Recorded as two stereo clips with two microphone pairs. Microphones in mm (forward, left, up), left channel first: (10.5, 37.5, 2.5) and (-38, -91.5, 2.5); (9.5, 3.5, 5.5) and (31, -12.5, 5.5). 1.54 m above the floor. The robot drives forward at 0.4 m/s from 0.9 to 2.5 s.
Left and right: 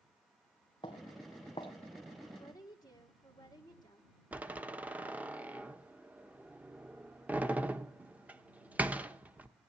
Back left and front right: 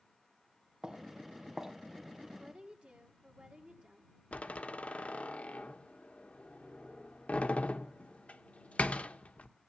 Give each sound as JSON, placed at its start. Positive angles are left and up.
{"t": 0.8, "sound": "footsteps", "azimuth_deg": 20, "distance_m": 2.5}
{"t": 2.4, "sound": "a woman speaking", "azimuth_deg": 5, "distance_m": 1.8}
{"t": 4.3, "sound": "a door slam", "azimuth_deg": 175, "distance_m": 1.1}